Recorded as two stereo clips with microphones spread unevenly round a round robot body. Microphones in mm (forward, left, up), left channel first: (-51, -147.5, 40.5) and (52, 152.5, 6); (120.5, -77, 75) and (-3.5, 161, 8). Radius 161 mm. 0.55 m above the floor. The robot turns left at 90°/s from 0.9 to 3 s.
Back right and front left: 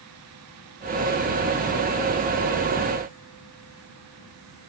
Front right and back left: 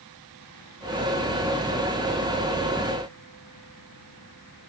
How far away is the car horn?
I don't hear a car horn.